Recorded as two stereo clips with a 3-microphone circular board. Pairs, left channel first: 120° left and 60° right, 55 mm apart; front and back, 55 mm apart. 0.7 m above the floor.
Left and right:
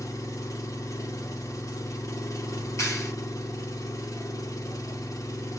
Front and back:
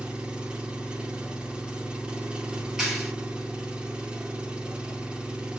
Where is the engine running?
110° left, 0.8 m.